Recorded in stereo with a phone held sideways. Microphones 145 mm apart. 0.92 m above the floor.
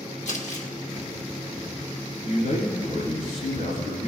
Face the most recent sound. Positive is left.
turn(degrees=70)  # may be behind; listen again after turning